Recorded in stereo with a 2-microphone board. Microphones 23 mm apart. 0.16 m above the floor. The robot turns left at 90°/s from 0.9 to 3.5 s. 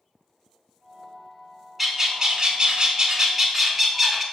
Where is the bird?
10° right, 0.6 m; by 4.2 s 165° right, 0.6 m.